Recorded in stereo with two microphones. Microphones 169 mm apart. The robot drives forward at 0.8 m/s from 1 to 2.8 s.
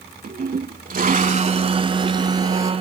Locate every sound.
0.2 s a toilet flushing: 60° right (ahead or behind); by 2.7 s 20° right (ahead or behind)